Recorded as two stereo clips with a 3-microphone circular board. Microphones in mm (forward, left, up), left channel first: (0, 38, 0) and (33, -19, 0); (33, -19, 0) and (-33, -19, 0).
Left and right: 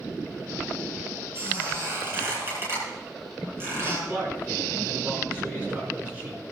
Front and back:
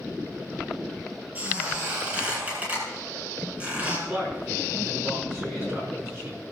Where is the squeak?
120° right, 9 m.